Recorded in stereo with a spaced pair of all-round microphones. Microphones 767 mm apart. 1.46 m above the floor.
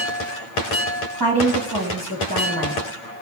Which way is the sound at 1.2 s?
25° right (ahead or behind).